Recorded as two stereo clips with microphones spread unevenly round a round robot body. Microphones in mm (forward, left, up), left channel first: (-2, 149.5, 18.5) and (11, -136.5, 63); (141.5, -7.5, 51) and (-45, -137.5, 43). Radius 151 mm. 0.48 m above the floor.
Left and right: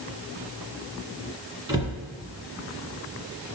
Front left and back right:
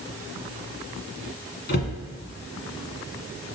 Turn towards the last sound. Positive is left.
turn(degrees=-10)